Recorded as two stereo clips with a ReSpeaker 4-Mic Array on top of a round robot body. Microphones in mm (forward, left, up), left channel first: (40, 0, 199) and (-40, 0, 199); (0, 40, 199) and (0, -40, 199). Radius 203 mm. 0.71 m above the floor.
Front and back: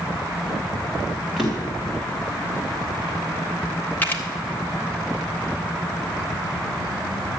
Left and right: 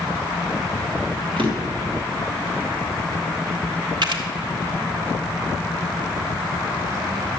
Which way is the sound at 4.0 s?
70° right.